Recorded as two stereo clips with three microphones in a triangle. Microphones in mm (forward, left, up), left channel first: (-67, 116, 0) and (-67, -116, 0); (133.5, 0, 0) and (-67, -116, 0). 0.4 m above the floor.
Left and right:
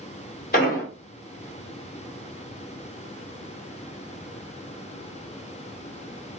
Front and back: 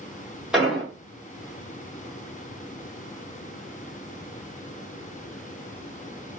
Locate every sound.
0.5 s an explosion: 125° left, 1.4 m